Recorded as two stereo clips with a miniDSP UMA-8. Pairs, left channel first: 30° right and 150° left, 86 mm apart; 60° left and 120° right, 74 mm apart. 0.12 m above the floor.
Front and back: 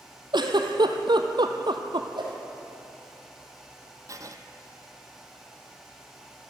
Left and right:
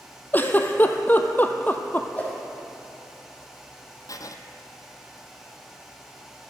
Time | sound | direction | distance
0.3 | a giggle | 125° left | 1.0 m
2.1 | a whoosh | 130° left | 2.5 m
4.1 | writing | 100° left | 0.8 m